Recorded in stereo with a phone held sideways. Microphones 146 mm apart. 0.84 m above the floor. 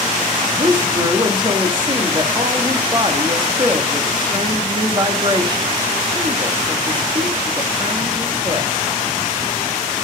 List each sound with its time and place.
0.5 s a woman speaking: 30° right (ahead or behind), 1.5 m